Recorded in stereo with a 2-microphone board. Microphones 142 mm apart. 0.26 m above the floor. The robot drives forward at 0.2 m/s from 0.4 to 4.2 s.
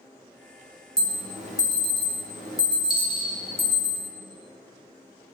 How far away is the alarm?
About 0.7 m.